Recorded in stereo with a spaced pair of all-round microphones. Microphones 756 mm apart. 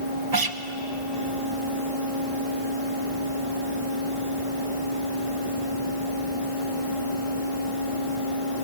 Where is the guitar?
30° right (ahead or behind), 0.7 m.